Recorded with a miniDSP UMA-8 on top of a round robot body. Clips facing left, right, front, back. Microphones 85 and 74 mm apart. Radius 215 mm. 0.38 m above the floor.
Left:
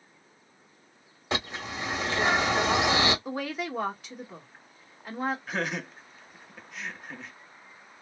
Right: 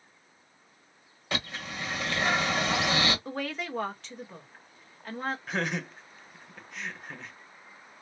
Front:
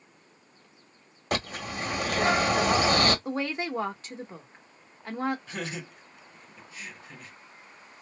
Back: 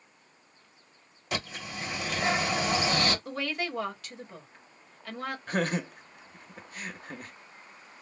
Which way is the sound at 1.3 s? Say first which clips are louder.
Left 3 dB, front 4 dB; 25° left.